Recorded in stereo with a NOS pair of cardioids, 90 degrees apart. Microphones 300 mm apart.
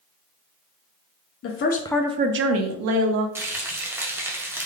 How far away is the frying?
About 0.9 m.